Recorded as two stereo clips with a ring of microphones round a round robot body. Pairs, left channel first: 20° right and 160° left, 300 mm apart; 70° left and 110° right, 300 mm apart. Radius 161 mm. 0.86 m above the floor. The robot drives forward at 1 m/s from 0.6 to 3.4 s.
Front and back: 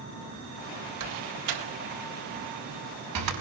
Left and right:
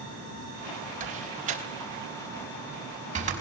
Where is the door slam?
Straight behind, 3 m.